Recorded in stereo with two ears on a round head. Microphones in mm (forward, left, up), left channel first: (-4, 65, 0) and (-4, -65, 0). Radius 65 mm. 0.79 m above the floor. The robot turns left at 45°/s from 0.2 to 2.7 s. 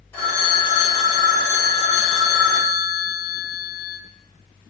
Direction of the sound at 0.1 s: 165° left.